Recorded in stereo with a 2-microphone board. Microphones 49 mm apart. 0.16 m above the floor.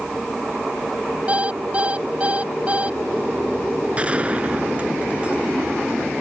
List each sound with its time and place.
1.3 s an alarm clock: 25° right (ahead or behind)
4.0 s a gunshot: 25° right (ahead or behind)